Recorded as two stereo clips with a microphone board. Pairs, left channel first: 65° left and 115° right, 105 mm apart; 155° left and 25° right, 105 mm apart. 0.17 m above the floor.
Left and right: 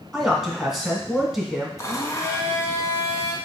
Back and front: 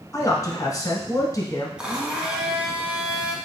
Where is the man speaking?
160° left, 1.2 m.